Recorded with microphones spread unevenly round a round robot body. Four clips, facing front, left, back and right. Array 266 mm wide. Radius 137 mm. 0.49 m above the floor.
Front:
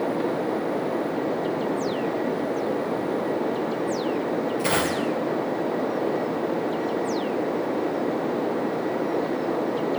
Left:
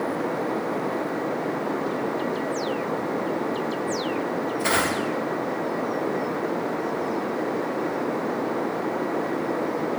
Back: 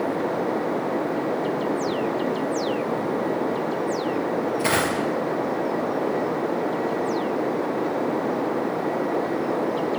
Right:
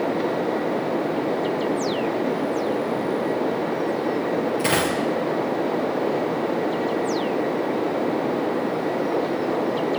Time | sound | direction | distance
4.6 | a dropped coin | 110° right | 3 m